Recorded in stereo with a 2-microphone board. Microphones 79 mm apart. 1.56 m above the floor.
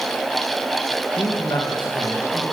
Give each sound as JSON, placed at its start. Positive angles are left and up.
{"t": 1.2, "sound": "a man speaking", "side_deg": 65, "distance_m": 1.7}